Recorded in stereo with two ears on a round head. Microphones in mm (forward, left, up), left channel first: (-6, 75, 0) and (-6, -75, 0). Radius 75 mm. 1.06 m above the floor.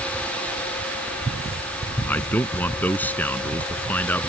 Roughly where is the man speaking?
Centre.